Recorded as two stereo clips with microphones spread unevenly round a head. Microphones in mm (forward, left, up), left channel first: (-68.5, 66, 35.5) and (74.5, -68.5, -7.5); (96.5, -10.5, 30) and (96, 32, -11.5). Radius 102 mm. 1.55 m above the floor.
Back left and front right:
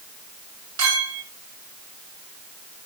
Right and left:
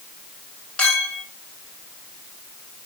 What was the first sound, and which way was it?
A clink, 30° right.